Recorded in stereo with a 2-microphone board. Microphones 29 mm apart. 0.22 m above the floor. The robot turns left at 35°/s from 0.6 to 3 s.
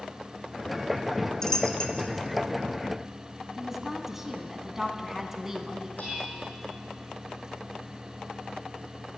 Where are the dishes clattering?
70° left (ahead or behind), 6.5 m.